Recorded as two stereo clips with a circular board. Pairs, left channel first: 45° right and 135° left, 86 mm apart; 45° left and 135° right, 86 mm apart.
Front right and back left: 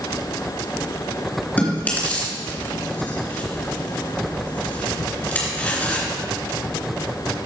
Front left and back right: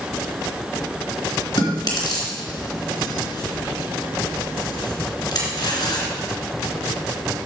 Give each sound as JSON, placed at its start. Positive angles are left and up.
{"t": 1.6, "sound": "chewing", "azimuth_deg": 20, "distance_m": 3.0}